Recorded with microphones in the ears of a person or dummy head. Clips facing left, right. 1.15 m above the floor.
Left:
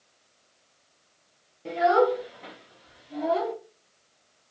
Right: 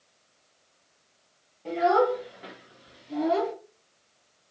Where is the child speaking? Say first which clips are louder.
Left 1 dB; 15° left (ahead or behind), 1.4 m; by 3.5 s 80° right, 0.9 m.